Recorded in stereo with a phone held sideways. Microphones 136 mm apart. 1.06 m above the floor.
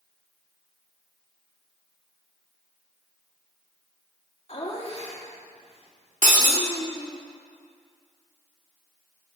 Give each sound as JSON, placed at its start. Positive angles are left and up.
{"t": 4.5, "sound": "laughter", "side_deg": 50, "distance_m": 2.0}
{"t": 6.2, "sound": "breaking glass", "side_deg": -75, "distance_m": 1.8}